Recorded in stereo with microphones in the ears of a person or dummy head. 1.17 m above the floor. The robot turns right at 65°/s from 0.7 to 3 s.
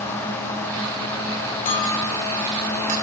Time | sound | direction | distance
1.6 | a clink | 40° left (ahead or behind) | 4 m